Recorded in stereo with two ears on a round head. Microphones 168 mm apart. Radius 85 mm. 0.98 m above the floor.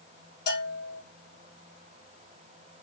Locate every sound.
0.5 s a bell: 50° left (ahead or behind), 2 m